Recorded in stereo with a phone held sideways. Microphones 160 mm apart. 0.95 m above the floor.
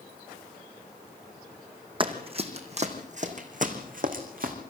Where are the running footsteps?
30° right (ahead or behind), 3 m; by 4.5 s 65° right (ahead or behind), 4 m.